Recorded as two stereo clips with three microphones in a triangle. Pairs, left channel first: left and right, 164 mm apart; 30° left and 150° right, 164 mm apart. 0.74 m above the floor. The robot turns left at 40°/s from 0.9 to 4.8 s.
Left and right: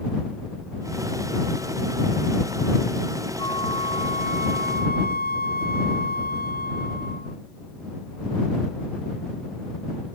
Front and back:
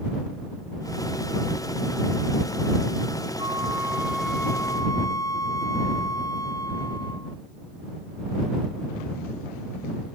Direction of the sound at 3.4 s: 155° left.